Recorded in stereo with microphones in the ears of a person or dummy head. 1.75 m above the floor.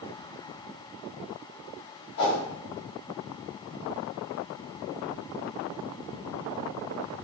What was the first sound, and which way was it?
A whoosh, 60° left (ahead or behind).